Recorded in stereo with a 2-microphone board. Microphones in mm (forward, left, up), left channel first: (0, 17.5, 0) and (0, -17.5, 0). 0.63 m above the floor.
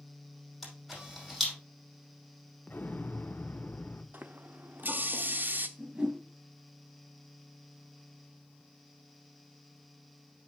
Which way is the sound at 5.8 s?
25° right (ahead or behind).